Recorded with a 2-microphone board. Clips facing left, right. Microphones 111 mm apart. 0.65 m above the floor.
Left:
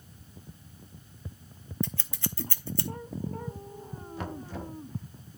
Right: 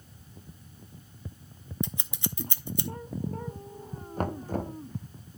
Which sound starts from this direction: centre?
Scissors, at 1.8 s.